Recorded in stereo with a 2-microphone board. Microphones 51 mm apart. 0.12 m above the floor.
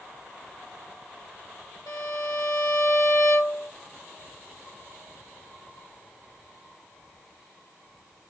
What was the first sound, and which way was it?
A violin, 75° left (ahead or behind).